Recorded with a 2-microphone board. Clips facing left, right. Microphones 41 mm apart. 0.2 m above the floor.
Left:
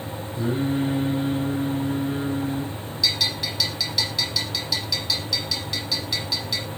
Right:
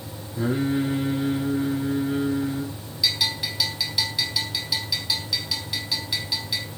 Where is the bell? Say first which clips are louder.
Even; 15° right (ahead or behind), 7 m.